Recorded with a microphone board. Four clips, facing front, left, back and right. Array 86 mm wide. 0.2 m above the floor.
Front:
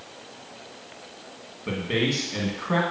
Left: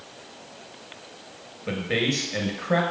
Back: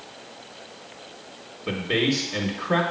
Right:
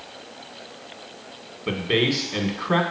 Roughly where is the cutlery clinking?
I don't hear cutlery clinking.